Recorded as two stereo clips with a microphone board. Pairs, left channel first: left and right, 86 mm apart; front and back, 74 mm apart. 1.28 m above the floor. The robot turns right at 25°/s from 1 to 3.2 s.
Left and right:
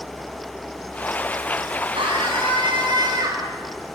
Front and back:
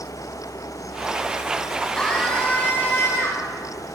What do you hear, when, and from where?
1.9 s a scream: 80° right, 9.5 m; by 3.5 s 50° right, 9.5 m